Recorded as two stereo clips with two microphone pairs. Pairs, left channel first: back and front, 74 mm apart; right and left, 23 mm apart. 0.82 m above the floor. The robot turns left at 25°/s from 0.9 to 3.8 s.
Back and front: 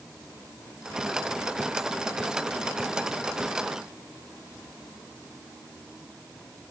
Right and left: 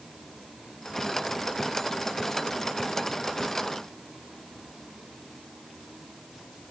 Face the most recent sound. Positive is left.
No sound to turn to.